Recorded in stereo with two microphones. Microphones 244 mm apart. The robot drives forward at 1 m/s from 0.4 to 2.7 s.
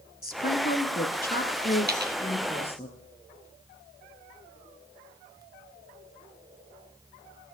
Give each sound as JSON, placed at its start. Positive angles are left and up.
{"t": 0.2, "sound": "a woman speaking", "side_deg": 40, "distance_m": 1.6}
{"t": 1.9, "sound": "a dropped coin", "side_deg": -40, "distance_m": 2.0}